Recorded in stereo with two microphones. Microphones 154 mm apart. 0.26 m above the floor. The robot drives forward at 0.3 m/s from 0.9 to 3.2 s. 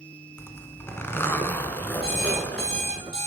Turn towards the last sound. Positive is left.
turn(degrees=35)  # may be behind; listen again after turning